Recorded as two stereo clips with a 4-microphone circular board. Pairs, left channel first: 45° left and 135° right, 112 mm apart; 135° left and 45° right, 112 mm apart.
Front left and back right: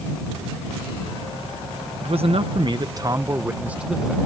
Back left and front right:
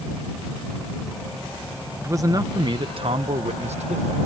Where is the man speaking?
110° right; by 4.2 s 45° right.